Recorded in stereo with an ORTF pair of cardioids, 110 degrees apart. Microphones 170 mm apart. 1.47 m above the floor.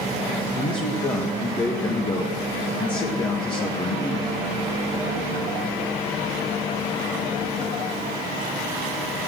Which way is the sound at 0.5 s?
25° left.